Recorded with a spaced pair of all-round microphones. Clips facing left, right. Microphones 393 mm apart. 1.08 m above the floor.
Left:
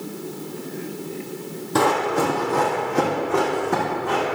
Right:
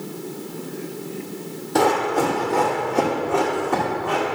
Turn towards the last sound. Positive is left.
turn(degrees=30)  # may be behind; listen again after turning